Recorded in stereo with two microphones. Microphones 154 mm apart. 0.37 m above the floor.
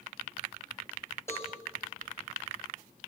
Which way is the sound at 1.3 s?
15° left (ahead or behind).